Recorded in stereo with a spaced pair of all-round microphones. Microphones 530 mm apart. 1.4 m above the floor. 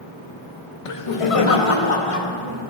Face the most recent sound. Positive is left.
turn(degrees=75)  # may be behind; listen again after turning